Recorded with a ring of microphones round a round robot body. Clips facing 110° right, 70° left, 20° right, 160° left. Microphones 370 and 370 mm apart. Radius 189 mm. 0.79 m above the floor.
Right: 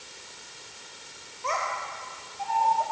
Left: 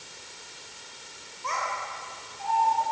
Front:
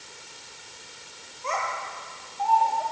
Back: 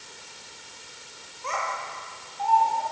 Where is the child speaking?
135° right, 2.0 m.